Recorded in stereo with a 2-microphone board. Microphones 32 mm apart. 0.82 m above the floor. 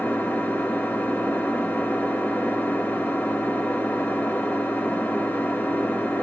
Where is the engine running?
75° left (ahead or behind), 1.8 m.